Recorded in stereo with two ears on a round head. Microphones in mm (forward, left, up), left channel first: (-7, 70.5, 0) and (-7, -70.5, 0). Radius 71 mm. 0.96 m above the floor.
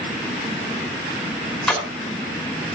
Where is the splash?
5° left (ahead or behind), 3 m.